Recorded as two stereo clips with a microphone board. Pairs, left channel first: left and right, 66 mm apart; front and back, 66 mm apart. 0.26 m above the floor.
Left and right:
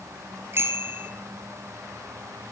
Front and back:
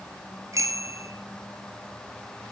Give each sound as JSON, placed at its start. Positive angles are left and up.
{"t": 0.5, "sound": "a bicycle bell", "azimuth_deg": -145, "distance_m": 3.0}